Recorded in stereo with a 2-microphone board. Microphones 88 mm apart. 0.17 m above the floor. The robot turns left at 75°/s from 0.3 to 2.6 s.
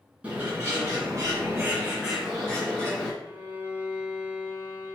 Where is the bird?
35° right, 1.8 m; by 3.1 s 155° left, 1.8 m.